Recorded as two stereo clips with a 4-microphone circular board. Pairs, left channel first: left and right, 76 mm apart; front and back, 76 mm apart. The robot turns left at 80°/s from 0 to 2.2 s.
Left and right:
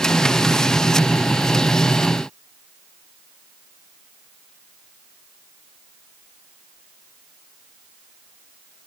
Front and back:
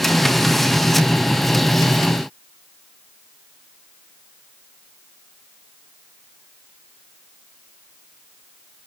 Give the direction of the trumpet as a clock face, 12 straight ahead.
I don't hear a trumpet.